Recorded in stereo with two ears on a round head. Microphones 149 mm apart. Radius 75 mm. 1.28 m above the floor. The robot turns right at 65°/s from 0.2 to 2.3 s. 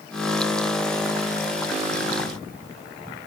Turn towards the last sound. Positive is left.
No sound to turn to.